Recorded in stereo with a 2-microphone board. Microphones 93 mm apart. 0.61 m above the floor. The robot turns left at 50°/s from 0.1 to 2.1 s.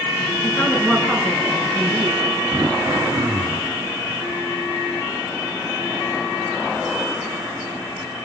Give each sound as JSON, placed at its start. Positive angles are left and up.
{"t": 0.4, "sound": "a woman speaking", "azimuth_deg": 30, "distance_m": 6.5}
{"t": 2.5, "sound": "throat clearing", "side_deg": -45, "distance_m": 1.3}